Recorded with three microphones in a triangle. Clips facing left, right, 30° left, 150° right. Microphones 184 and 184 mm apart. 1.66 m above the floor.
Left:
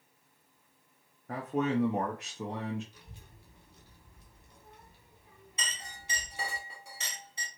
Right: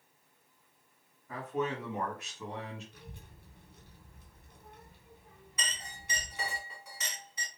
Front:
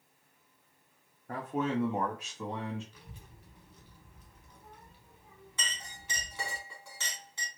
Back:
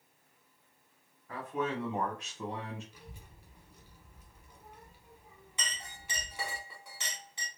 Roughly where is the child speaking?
Right.